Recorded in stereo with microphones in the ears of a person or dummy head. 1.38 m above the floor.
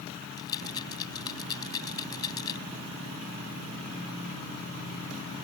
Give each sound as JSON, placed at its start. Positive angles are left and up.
{"t": 0.4, "sound": "a rattle", "side_deg": 25}